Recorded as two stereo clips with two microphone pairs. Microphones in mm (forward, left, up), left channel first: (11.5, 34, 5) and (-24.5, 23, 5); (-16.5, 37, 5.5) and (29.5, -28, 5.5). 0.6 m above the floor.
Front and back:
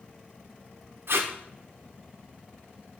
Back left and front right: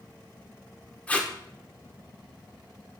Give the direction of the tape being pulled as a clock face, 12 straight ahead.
5 o'clock.